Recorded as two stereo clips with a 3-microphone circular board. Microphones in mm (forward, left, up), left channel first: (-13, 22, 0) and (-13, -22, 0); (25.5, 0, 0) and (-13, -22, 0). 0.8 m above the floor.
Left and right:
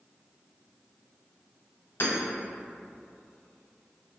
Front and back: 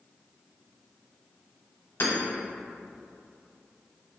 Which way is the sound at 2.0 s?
65° left.